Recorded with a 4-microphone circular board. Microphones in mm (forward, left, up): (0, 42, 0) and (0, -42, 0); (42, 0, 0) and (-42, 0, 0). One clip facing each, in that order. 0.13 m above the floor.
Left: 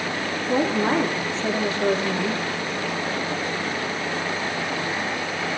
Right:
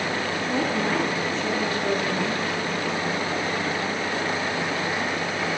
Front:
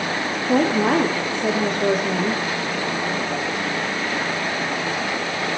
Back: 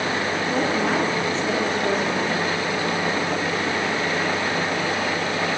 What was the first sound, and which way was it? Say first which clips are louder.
A woman speaking: left 5 dB, front 6 dB; 30° left.